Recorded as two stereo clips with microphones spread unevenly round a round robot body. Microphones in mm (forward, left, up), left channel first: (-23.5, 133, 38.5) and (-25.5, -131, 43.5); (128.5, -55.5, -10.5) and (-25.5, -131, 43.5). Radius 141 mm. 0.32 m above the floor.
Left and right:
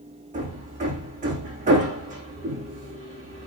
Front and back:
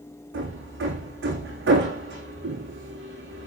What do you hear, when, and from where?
0.3 s hammering: 155° right, 7 m